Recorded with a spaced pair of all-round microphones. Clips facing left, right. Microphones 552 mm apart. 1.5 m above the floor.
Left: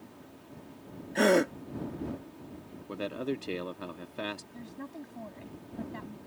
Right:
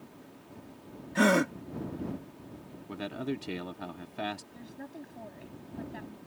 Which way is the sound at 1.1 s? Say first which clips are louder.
Left 1 dB; 30° right (ahead or behind).